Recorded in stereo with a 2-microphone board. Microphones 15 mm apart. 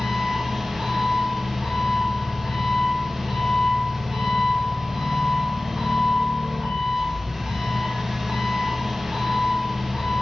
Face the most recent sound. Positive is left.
turn(degrees=-55)  # may be behind; listen again after turning